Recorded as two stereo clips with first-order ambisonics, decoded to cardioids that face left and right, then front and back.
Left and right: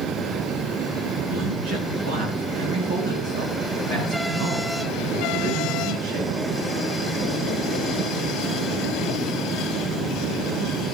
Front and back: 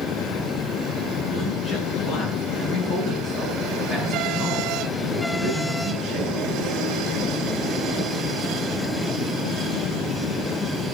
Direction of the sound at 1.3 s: 60° right.